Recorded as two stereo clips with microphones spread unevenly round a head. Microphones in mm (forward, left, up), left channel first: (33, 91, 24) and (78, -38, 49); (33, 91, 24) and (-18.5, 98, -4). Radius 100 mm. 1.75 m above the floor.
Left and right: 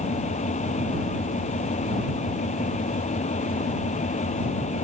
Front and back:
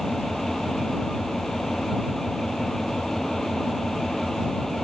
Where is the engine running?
75° left.